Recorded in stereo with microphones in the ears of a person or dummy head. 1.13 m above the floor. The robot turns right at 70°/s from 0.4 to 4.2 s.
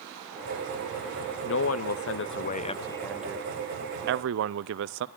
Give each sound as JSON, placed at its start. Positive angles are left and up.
{"t": 1.4, "sound": "a man speaking", "azimuth_deg": 60, "distance_m": 0.8}